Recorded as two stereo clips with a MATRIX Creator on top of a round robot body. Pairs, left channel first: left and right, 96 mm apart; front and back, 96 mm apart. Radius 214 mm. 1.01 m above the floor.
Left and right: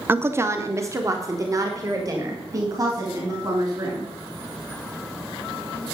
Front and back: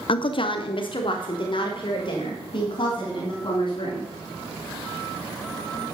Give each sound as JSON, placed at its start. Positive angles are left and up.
{"t": 0.1, "sound": "a woman speaking", "azimuth_deg": -20, "distance_m": 0.7}